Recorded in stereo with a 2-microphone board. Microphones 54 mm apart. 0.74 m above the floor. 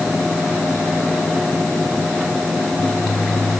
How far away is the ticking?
No ticking in this recording.